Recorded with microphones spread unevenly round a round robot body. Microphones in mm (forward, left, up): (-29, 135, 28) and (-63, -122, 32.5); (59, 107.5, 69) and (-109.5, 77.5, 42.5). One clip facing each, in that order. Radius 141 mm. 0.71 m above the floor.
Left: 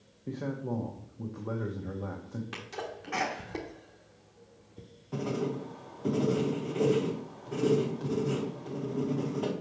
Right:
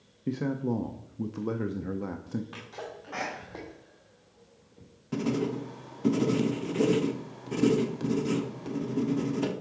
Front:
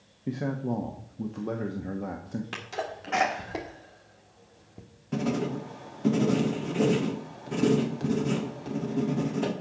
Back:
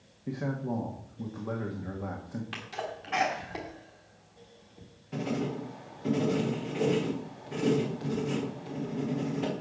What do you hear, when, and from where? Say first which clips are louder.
0.3 s a man speaking: right 5 dB, front 3 dB; 60° right, 0.7 m
2.5 s a sneeze: left 1 dB, front 3 dB; 45° left, 1.4 m
5.1 s writing: right 4 dB, front 3 dB; 40° right, 1.0 m